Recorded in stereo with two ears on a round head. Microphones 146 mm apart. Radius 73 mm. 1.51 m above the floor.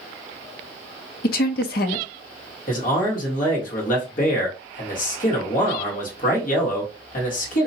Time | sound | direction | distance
1.2 | a woman speaking | 60° left (ahead or behind) | 0.6 m
2.7 | a man speaking | 55° left (ahead or behind) | 1.5 m